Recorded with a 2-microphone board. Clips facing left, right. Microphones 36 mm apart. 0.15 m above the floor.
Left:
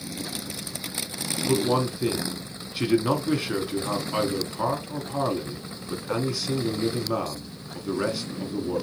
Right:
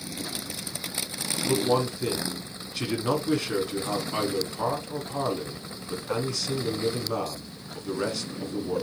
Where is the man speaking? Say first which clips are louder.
Left 1 dB; 10° left (ahead or behind), 1.1 m.